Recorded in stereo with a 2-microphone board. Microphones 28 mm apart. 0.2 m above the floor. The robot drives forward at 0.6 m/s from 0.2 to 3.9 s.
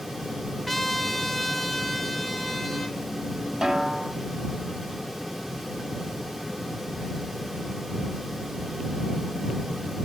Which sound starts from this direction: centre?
A trumpet, at 0.7 s.